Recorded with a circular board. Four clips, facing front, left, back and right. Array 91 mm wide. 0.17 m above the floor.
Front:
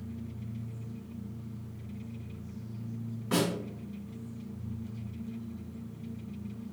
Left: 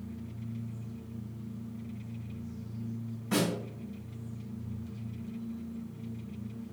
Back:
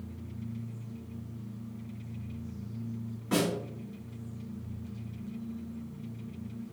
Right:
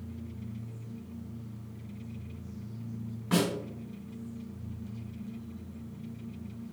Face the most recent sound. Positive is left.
turn(degrees=-80)